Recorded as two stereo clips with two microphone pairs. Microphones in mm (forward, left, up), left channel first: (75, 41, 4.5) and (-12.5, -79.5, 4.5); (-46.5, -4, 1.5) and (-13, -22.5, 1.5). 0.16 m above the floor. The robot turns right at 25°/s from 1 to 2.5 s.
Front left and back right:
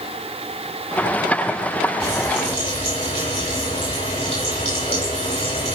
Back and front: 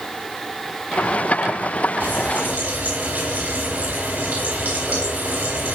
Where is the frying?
10° right, 4.5 m; by 5.8 s 5° left, 4.5 m.